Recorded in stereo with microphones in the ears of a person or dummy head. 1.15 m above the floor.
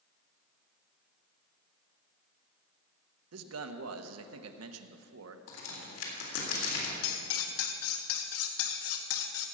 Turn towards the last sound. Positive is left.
turn(degrees=80)